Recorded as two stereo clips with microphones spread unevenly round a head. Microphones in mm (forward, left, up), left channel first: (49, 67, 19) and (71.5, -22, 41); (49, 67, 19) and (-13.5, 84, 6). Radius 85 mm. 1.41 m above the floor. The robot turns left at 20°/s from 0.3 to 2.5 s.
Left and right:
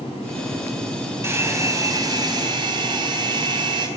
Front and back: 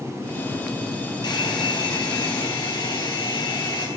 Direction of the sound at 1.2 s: 15° right.